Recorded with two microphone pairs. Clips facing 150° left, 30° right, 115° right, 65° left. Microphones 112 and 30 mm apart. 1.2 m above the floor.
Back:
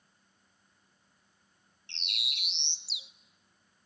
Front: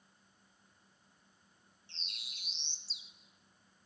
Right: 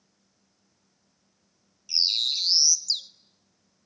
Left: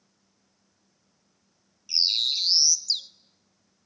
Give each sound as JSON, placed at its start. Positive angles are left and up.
{"t": 1.9, "sound": "a bird", "azimuth_deg": 145, "distance_m": 0.6}